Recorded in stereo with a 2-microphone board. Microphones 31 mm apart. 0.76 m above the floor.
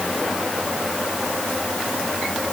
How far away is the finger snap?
No finger snap in this recording.